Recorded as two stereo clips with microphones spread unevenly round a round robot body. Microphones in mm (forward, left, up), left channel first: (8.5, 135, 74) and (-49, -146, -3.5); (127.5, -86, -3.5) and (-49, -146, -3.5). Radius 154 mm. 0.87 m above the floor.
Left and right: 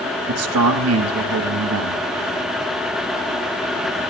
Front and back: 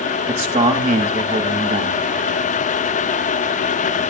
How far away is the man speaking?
About 1.6 m.